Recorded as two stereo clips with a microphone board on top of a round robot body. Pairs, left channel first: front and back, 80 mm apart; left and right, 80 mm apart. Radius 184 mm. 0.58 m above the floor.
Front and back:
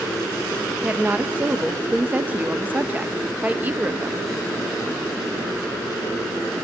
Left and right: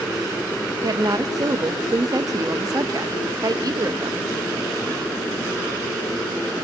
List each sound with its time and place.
0.8 s a woman speaking: 115° right, 1.1 m